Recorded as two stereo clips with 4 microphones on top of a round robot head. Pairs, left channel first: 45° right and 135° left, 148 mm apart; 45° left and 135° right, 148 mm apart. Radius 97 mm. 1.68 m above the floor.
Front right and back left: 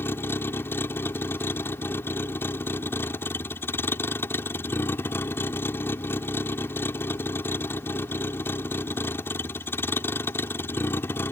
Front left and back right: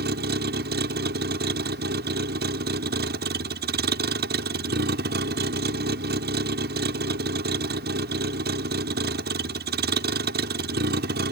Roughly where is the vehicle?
Behind right.